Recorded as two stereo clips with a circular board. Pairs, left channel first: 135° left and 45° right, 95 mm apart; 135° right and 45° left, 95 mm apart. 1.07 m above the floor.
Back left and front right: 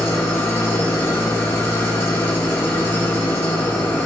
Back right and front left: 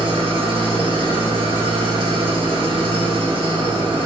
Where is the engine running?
70° left, 0.8 m.